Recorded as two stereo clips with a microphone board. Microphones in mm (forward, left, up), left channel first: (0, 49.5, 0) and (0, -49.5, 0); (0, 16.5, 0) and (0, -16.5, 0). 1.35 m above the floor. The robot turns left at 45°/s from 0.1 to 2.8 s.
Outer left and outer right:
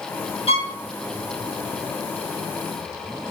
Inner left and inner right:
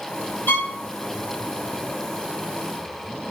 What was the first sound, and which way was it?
A violin, 75° left (ahead or behind).